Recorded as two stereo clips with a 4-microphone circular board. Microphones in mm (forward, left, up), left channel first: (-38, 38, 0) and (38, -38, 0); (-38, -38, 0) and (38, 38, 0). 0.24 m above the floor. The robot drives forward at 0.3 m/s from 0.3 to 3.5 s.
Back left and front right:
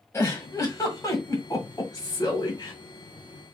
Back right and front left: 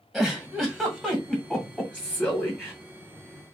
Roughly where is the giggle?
Behind left.